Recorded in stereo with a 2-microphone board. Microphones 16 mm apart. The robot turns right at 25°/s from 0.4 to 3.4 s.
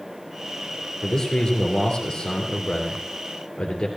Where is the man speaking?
35° left, 3 m; by 3.9 s 95° left, 3 m.